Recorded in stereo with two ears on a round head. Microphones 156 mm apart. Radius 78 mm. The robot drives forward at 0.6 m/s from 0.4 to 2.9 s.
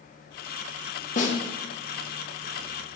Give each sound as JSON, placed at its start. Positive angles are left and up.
{"t": 1.2, "sound": "a snare drum", "side_deg": 45, "distance_m": 1.7}